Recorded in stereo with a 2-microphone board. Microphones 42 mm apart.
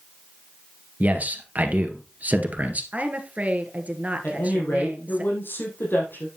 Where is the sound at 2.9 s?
35° right (ahead or behind), 1.7 m.